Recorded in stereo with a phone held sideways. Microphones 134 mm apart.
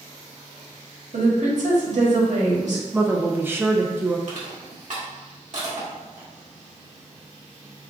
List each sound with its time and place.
1.1 s a woman speaking: 65° right (ahead or behind), 1.5 m
2.9 s a woman speaking: 15° right (ahead or behind), 0.5 m
4.3 s crushing: 60° right (ahead or behind), 1.5 m